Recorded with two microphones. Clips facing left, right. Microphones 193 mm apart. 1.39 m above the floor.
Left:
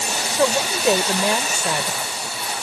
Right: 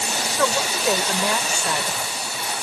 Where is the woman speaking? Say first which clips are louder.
Left 4 dB; 20° left (ahead or behind).